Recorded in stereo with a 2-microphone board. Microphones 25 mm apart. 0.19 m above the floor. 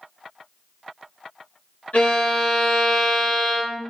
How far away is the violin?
About 1.9 m.